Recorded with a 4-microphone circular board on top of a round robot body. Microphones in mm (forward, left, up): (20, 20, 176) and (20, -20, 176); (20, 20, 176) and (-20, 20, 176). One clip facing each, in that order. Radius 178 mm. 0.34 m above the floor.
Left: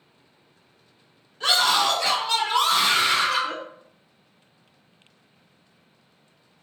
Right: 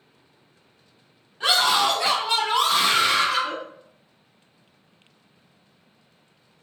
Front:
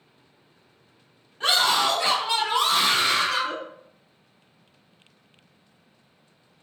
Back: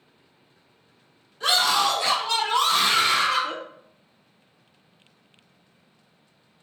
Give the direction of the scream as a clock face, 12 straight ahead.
1 o'clock.